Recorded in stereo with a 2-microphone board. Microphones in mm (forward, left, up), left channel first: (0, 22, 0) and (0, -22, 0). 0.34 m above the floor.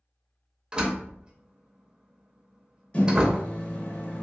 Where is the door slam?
20° right (ahead or behind), 0.6 m.